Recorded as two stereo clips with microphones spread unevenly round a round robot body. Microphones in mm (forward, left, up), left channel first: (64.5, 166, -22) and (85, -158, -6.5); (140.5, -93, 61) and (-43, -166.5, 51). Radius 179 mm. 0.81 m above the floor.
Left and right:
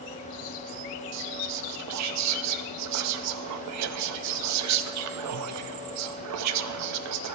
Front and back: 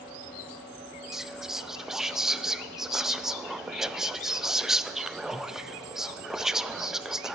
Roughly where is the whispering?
Right.